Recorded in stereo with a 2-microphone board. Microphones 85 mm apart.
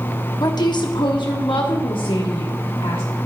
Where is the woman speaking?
50° left (ahead or behind), 1.0 m; by 3.0 s 80° left, 2 m.